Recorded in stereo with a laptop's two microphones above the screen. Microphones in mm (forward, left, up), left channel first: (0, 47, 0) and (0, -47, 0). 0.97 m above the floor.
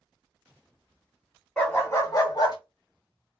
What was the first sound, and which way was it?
A dog barking, 15° left (ahead or behind).